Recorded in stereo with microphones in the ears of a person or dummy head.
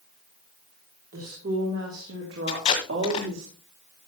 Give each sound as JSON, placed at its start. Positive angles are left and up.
{"t": 1.1, "sound": "a woman speaking", "side_deg": -60, "distance_m": 3.5}
{"t": 2.5, "sound": "tape being pulled", "side_deg": 35, "distance_m": 2.0}